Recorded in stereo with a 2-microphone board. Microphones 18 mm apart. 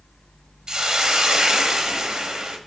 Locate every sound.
0.7 s a hiss: 50° right (ahead or behind), 0.9 m